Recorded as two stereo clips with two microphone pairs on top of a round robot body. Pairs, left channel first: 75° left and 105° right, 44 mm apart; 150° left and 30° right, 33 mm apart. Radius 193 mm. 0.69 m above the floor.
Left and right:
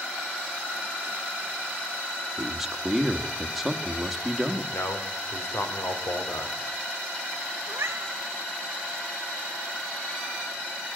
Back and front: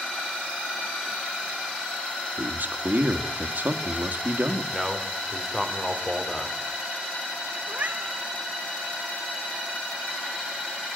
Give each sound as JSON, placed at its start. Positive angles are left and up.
{"t": 2.4, "sound": "a man speaking", "azimuth_deg": -25, "distance_m": 1.9}
{"t": 4.7, "sound": "a man speaking", "azimuth_deg": 70, "distance_m": 3.0}
{"t": 7.7, "sound": "a cat meowing", "azimuth_deg": -75, "distance_m": 0.6}